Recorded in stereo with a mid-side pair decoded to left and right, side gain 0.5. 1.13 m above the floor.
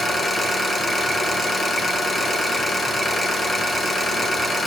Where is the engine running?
25° left, 1.1 m.